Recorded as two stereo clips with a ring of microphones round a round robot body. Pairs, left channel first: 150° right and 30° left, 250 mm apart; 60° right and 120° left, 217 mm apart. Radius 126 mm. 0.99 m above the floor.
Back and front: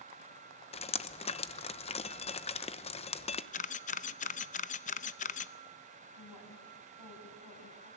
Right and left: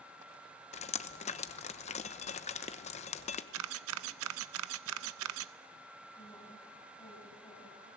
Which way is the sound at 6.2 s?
140° right.